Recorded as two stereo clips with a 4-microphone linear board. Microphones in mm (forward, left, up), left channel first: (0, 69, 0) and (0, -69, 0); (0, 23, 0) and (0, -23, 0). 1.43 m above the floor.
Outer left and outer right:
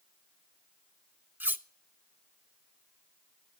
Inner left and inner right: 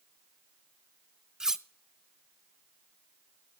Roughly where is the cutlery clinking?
Centre.